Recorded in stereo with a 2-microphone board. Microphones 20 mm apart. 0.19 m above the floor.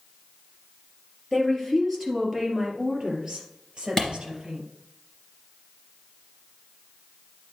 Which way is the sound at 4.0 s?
20° left (ahead or behind).